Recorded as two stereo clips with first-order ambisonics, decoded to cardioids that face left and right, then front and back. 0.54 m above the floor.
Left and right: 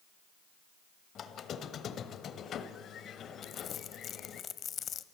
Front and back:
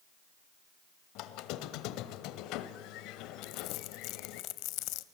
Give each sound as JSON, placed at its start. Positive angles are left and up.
{"t": 1.1, "sound": "a squeak", "azimuth_deg": 30, "distance_m": 1.2}
{"t": 3.4, "sound": "crumpling", "azimuth_deg": 30, "distance_m": 0.9}